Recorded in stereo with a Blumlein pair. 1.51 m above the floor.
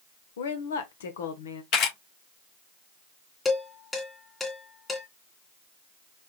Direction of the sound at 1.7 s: 45° left.